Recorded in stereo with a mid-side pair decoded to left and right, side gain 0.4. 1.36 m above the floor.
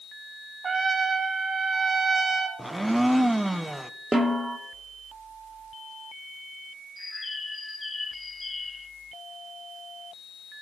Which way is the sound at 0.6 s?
40° right.